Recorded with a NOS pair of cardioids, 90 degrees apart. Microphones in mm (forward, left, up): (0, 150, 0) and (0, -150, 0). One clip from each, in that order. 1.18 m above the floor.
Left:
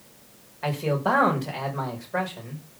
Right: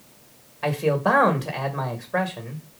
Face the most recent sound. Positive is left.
turn(degrees=-20)